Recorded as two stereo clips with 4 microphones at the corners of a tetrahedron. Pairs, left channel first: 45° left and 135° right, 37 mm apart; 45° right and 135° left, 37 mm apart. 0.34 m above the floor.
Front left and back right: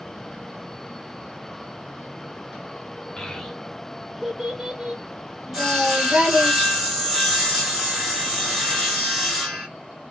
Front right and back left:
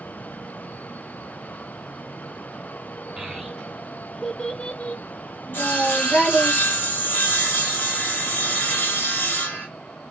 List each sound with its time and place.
3.2 s a child speaking: 80° left, 0.9 m; by 6.5 s 90° right, 2.0 m
5.5 s sawing: 50° right, 2.0 m